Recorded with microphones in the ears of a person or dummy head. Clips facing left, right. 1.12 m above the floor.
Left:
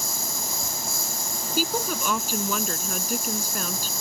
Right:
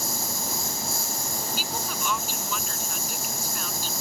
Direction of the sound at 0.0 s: 75° left (ahead or behind).